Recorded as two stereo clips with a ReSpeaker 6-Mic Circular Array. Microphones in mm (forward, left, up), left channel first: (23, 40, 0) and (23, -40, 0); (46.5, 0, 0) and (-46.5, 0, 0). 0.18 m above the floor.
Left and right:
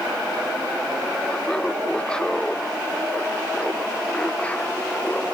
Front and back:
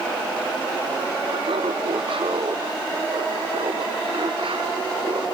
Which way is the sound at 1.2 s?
170° left.